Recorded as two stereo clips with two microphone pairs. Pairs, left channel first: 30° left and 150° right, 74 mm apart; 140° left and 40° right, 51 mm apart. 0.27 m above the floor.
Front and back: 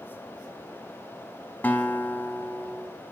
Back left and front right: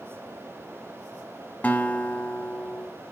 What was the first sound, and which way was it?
A guitar, 95° left.